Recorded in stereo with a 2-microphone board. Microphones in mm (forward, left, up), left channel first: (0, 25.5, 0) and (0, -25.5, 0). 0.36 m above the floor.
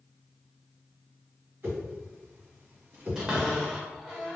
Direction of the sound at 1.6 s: 40° right (ahead or behind).